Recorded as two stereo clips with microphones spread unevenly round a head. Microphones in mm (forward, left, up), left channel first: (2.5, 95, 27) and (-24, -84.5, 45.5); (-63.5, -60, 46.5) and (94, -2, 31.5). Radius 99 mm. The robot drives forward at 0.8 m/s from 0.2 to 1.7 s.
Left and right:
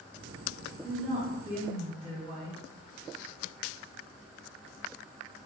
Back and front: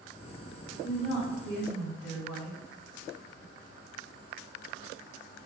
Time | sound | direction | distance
0.8 | a woman speaking | 150° right | 1.4 m